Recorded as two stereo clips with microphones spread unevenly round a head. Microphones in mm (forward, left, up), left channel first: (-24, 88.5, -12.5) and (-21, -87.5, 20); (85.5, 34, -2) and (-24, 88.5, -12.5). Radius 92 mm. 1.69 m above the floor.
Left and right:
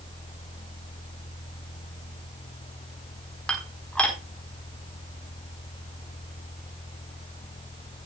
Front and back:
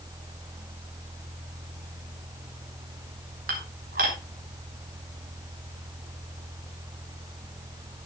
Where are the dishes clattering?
175° left, 4 m.